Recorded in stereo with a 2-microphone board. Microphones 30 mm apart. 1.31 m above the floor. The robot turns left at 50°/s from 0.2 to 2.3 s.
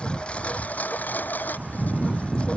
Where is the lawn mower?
40° left (ahead or behind); by 2.6 s 45° left (ahead or behind).